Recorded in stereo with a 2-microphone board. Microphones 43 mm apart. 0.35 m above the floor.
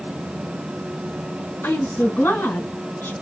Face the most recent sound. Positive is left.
turn(degrees=60)  # may be behind; listen again after turning